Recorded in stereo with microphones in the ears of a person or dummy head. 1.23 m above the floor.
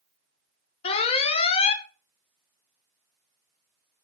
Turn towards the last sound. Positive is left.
turn(degrees=35)  # may be behind; listen again after turning